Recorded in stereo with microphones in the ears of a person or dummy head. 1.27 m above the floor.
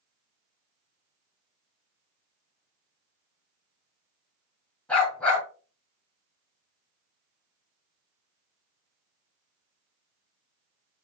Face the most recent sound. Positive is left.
turn(degrees=10)  # may be behind; listen again after turning